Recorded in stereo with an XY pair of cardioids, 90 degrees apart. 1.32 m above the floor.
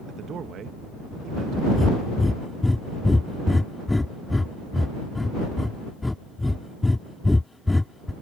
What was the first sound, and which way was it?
A man speaking, 65° right.